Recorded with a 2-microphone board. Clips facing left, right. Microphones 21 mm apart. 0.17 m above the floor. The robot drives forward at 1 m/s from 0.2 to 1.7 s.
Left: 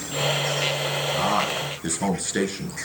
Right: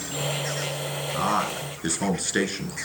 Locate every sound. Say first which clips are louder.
1.1 s a man speaking: even; 20° right (ahead or behind), 3 m; by 2.8 s 25° right (ahead or behind), 3 m